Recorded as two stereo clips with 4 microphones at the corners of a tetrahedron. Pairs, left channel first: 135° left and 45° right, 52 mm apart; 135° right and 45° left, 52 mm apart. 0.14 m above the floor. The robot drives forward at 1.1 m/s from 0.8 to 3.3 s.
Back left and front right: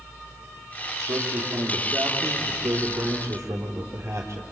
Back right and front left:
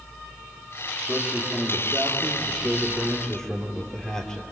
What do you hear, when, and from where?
1.1 s a man speaking: 35° right, 4.5 m; by 4.4 s 65° right, 3 m